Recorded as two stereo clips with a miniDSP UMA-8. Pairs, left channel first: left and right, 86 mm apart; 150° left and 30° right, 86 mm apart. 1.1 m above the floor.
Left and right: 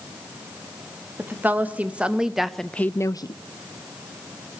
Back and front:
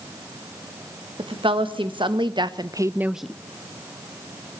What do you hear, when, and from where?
1.2 s a woman speaking: 25° right, 1.8 m; by 3.3 s 70° left, 0.5 m